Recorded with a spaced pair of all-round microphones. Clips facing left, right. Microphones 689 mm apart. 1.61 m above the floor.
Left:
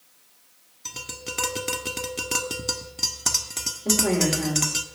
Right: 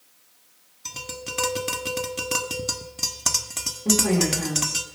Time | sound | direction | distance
0.8 | tapping | 10° right (ahead or behind) | 1.4 m
3.9 | a woman speaking | 40° right (ahead or behind) | 6 m